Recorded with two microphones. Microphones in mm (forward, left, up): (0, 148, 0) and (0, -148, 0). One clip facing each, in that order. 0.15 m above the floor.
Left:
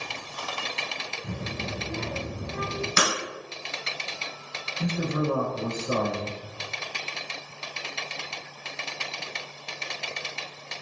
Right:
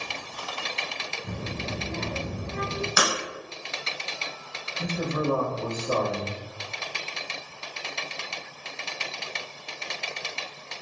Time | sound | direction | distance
1.2 | a child speaking | 25° left (ahead or behind) | 1.4 m
3.0 | breaking glass | 30° left (ahead or behind) | 1.2 m
4.8 | a man speaking | 20° left (ahead or behind) | 1.2 m